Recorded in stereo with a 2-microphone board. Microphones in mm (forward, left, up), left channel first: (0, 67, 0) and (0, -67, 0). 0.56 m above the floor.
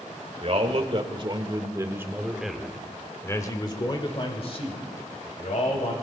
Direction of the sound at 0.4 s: 50° right (ahead or behind).